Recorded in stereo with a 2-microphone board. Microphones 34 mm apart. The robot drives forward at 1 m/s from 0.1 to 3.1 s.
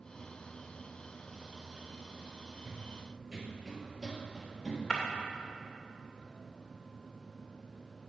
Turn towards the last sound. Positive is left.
turn(degrees=15)  # may be behind; listen again after turning